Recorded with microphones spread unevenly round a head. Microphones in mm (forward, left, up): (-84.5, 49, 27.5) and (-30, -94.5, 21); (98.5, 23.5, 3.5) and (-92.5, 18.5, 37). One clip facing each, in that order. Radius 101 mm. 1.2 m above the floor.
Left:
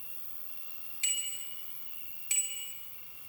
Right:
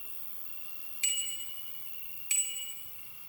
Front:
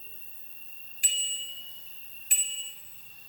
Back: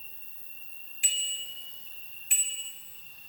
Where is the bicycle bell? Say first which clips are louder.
Right 1 dB, front 1 dB; 55° right, 3 m.